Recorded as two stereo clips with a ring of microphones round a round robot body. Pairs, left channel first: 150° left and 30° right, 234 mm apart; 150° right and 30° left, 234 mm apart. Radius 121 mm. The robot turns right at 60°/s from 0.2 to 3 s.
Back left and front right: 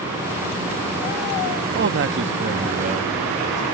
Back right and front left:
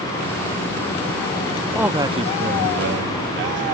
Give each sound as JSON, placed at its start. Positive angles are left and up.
{"t": 1.8, "sound": "a man speaking", "azimuth_deg": -55}